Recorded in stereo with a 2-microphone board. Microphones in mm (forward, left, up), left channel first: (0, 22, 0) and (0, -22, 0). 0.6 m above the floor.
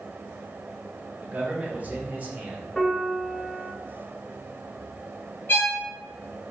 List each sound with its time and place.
1.2 s a man speaking: 35° right (ahead or behind), 1.0 m
2.8 s a piano: 10° left (ahead or behind), 1.1 m
5.5 s a violin: 50° left (ahead or behind), 1.3 m